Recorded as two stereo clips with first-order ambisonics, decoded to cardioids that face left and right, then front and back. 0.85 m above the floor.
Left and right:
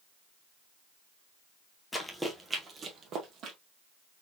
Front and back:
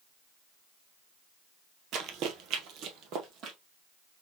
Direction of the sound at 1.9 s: 165° left.